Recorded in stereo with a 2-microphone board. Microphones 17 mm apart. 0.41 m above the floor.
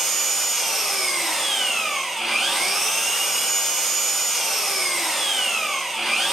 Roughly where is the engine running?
Centre.